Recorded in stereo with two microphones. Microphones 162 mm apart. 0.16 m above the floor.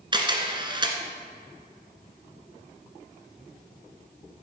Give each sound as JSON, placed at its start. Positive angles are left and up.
{"t": 0.1, "sound": "a camera shutter", "side_deg": -30, "distance_m": 1.3}